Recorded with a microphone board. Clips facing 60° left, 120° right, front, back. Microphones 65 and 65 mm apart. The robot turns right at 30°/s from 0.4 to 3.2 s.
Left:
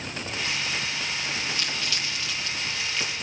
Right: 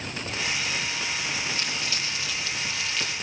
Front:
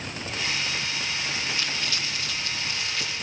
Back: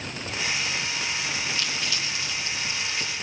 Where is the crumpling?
65° right, 8 m; by 3.1 s 20° right, 8 m.